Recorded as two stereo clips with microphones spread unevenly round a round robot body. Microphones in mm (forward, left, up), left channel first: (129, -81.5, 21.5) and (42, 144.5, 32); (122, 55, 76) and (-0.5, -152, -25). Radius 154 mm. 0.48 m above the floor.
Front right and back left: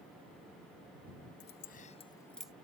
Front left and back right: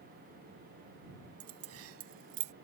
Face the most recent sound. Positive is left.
turn(degrees=-165)